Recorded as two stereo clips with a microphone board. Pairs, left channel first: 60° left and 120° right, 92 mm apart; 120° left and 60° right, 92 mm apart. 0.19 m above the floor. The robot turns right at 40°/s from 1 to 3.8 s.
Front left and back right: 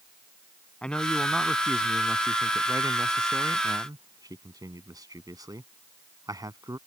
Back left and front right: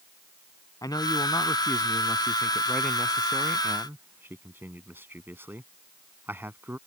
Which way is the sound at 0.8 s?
135° left.